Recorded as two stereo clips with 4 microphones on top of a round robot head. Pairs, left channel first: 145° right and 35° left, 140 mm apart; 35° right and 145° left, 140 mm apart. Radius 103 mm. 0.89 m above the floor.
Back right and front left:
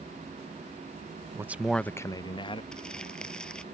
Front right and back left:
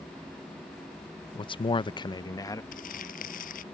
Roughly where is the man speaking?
Ahead.